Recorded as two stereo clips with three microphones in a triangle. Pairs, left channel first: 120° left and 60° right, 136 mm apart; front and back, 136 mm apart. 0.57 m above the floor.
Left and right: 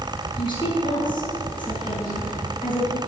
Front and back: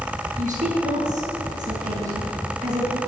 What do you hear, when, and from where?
0.4 s a woman speaking: 170° left, 4.5 m